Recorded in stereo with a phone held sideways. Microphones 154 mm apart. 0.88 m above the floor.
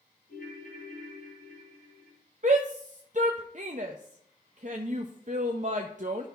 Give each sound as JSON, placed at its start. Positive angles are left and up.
{"t": 0.3, "sound": "a ringtone", "side_deg": 80, "distance_m": 3.0}
{"t": 2.4, "sound": "a shout", "side_deg": -55, "distance_m": 0.6}